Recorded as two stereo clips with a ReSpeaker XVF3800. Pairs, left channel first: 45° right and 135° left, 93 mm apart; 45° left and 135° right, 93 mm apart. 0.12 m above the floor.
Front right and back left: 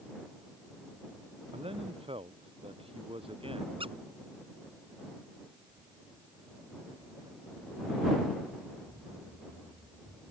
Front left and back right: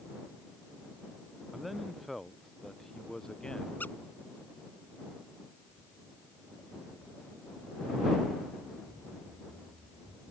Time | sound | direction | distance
1.5 | a man speaking | 135° left | ?
3.8 | a squeak | 115° left | ?
5.7 | footsteps | 105° left | ?